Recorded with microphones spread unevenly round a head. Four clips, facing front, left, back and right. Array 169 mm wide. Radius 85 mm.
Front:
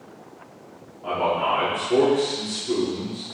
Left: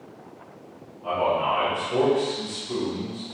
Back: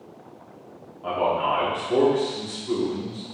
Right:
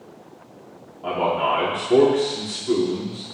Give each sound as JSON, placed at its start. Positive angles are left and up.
{"t": 1.0, "sound": "a man speaking", "azimuth_deg": -95, "distance_m": 5.0}